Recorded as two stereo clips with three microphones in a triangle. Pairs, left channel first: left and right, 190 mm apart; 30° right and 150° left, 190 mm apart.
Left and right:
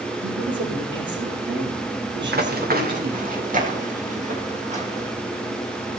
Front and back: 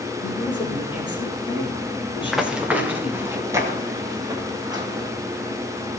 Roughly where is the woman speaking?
Right.